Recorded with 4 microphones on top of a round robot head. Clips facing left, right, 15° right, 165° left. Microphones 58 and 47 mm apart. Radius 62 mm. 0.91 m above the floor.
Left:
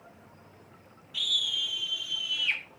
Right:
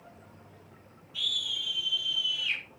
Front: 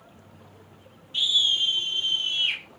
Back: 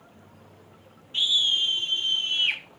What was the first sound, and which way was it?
A scream, 110° left.